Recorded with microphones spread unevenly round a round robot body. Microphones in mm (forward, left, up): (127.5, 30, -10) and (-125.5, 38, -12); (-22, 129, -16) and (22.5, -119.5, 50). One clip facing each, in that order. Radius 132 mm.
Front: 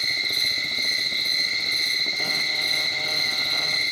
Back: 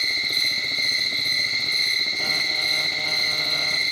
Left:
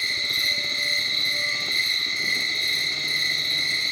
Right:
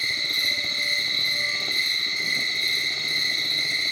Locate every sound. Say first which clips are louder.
0.0 s an insect: back 1 dB, even; 75° left, 4.5 m